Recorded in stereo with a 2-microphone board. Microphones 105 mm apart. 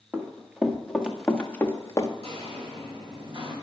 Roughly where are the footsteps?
Right.